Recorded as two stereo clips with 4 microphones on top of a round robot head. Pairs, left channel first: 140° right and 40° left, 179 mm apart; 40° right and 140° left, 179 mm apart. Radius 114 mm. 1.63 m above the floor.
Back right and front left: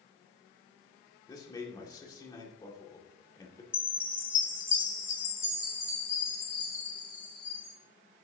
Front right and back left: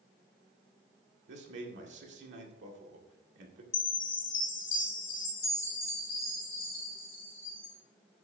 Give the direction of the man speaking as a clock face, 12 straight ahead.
7 o'clock.